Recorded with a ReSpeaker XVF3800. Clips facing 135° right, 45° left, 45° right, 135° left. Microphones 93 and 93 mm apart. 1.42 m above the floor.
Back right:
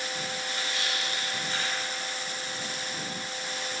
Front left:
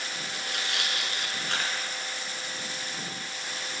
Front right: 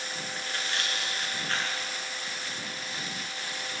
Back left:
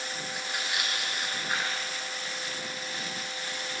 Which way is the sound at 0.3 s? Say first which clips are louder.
Even, even; 55° left.